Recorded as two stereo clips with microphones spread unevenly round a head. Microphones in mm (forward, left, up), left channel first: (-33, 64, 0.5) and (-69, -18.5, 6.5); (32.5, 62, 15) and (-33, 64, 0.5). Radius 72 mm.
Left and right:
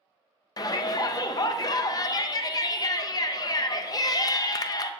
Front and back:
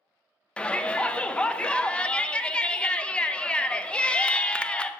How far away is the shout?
About 0.5 m.